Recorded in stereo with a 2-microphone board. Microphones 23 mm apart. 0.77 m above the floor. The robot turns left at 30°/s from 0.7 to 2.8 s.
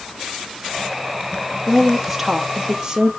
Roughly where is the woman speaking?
Ahead.